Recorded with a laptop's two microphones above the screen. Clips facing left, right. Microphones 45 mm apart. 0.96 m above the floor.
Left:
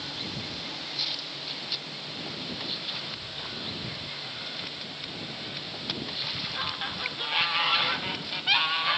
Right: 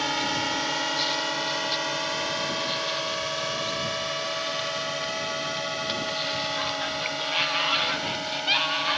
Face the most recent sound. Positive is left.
turn(degrees=-70)  # may be behind; listen again after turning